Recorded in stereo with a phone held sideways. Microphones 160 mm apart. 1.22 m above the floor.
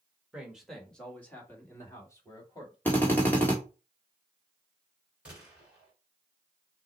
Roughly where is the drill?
Centre.